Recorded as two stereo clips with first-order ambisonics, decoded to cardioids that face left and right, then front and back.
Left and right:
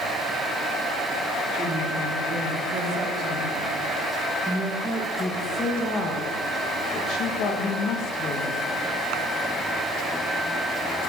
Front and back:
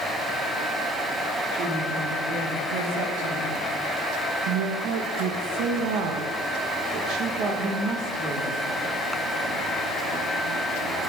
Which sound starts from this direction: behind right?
A woman speaking, at 1.5 s.